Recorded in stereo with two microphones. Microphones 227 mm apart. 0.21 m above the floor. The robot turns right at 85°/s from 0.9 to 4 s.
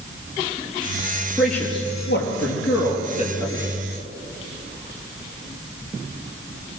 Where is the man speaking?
10° right (ahead or behind), 5 m; by 3.6 s 5° right (ahead or behind), 5 m.